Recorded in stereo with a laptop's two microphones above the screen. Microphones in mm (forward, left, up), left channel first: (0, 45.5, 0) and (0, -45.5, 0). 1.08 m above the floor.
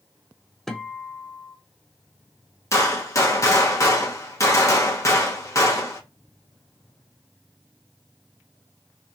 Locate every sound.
0.7 s a guitar: 5° left (ahead or behind), 0.6 m
2.7 s a gunshot: 35° left (ahead or behind), 0.6 m